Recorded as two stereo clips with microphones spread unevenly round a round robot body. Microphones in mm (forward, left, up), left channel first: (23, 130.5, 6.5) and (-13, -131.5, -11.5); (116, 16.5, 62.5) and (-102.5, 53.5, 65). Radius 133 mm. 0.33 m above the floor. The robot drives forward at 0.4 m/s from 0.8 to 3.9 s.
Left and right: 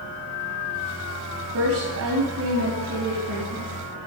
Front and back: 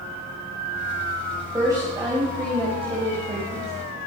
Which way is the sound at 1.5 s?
115° right.